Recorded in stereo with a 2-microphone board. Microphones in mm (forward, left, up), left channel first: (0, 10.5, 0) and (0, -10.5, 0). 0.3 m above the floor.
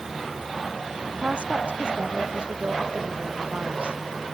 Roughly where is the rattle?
No rattle in this recording.